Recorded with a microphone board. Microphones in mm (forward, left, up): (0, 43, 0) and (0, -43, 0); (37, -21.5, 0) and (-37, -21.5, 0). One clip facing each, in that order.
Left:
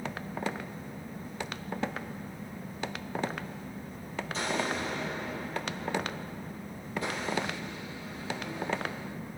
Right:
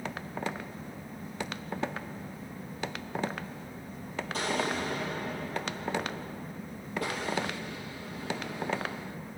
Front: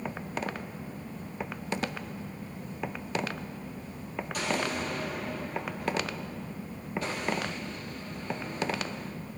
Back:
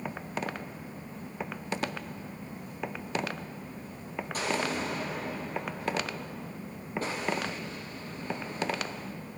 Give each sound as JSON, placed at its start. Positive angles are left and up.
{"t": 4.3, "sound": "an explosion", "azimuth_deg": -130, "distance_m": 5.5}